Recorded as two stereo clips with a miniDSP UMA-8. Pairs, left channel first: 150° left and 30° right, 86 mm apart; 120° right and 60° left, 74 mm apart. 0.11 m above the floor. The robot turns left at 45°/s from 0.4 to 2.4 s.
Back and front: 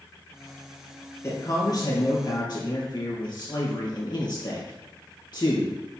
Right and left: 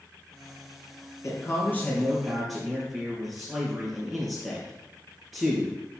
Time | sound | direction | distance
1.2 | a man speaking | 160° right | 2.5 m